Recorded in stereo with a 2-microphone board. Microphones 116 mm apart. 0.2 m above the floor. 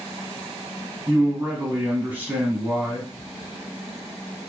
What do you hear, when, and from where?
1.1 s a man speaking: 15° right (ahead or behind), 1.2 m